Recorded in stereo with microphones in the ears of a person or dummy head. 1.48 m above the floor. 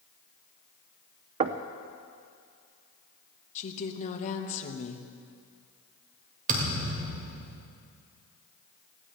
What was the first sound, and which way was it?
Knocking, 35° right (ahead or behind).